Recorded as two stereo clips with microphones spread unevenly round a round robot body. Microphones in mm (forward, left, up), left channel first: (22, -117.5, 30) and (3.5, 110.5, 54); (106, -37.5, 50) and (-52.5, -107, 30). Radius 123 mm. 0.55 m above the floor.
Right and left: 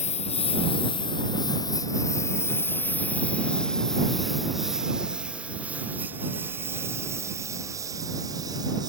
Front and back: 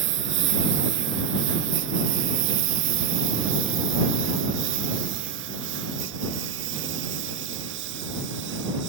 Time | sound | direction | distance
0.0 | a lawn mower | 150° right | ?